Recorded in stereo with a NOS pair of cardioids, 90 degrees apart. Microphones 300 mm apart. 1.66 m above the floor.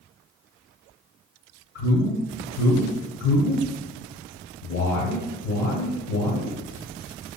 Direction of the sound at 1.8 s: 55° left.